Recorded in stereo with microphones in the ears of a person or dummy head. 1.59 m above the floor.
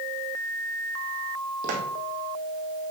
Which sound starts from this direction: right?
Footsteps, at 1.6 s.